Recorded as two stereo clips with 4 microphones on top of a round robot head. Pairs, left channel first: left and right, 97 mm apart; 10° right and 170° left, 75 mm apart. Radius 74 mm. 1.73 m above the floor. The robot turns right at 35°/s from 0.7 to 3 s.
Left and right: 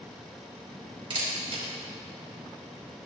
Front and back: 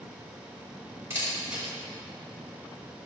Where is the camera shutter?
125° right, 5 m; by 1.7 s 105° right, 5 m.